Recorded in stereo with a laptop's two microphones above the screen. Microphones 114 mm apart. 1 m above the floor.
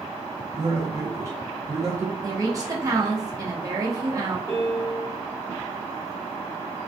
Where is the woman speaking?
30° right (ahead or behind), 0.9 m.